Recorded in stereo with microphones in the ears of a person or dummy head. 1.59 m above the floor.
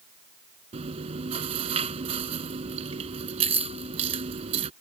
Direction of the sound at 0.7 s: 30° right (ahead or behind).